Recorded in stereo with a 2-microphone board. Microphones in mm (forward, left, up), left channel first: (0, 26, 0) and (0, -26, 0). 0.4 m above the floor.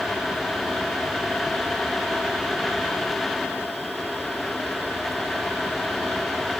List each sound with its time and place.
Only background noise.